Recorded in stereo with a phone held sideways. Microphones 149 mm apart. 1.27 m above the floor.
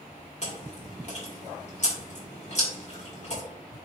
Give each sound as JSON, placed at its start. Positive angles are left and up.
{"t": 0.4, "sound": "chewing", "side_deg": 50, "distance_m": 3.0}